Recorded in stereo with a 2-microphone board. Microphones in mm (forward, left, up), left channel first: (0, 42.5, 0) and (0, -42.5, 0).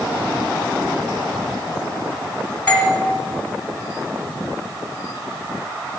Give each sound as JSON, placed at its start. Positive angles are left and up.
{"t": 2.7, "sound": "a doorbell", "side_deg": 15, "distance_m": 2.0}